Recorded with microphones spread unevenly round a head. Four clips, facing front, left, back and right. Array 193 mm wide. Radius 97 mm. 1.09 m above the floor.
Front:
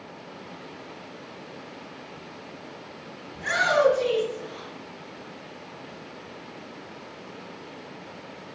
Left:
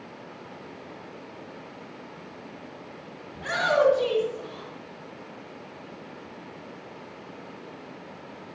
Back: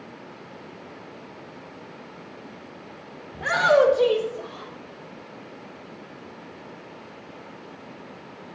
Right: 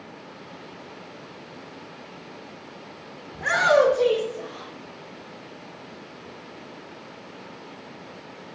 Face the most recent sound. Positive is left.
turn(degrees=-150)